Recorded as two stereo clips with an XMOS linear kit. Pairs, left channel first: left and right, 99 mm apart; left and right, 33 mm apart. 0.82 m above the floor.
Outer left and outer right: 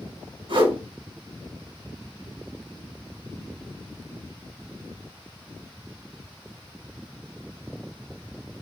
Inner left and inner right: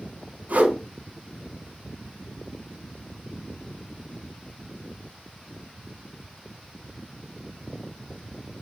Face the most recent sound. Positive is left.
turn(degrees=-65)  # may be behind; listen again after turning